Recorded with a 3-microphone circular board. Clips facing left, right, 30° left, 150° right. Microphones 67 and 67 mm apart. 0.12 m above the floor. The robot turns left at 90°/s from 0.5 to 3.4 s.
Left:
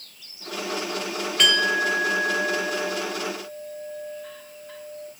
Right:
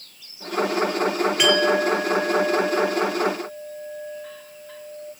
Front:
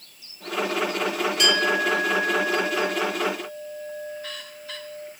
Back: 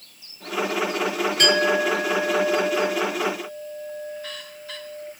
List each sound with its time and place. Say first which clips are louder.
1.4 s a clink: right 2 dB, back 3 dB; 165° right, 1.0 m; by 5.1 s 10° left, 1.0 m